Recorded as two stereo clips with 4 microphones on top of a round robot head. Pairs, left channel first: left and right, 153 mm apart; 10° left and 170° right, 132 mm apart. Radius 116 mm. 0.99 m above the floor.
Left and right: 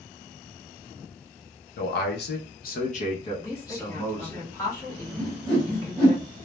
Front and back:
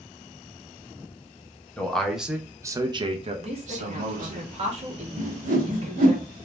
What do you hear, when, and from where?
1.8 s a man speaking: 90° left, 0.9 m; by 4.4 s 175° left, 1.0 m
3.4 s a woman speaking: 160° left, 1.1 m
5.2 s a whoosh: straight behind, 0.9 m